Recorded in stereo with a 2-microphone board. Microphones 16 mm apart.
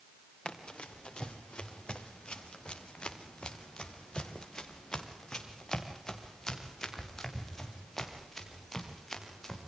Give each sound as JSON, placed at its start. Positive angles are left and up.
{"t": 0.5, "sound": "running footsteps", "side_deg": 80, "distance_m": 4.0}